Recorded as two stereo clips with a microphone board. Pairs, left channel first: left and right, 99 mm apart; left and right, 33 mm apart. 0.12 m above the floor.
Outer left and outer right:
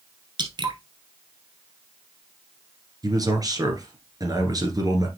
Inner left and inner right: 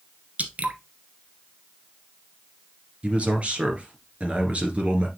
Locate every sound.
0.4 s dripping: 50° right (ahead or behind), 1.0 m
3.0 s a man speaking: 40° right (ahead or behind), 2.0 m